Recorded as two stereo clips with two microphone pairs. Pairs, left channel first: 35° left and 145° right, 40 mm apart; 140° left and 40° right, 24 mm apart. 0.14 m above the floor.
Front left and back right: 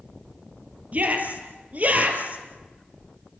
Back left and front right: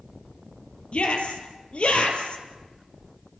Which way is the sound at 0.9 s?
170° left.